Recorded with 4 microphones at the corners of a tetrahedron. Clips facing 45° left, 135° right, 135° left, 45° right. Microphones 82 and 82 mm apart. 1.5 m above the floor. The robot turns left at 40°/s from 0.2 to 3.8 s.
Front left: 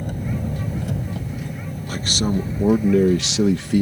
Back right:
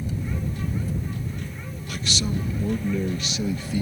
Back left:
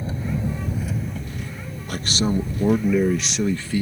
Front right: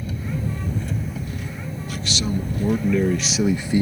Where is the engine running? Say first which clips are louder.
Front left 3 dB, back left 1 dB; 75° left; by 3.8 s 65° right.